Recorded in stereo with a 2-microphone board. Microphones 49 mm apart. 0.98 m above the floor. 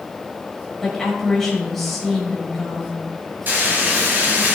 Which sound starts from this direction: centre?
A woman speaking, at 0.8 s.